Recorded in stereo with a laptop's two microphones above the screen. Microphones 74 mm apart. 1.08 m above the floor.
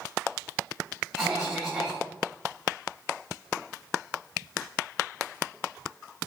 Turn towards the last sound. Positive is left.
turn(degrees=0)  # may be behind; listen again after turning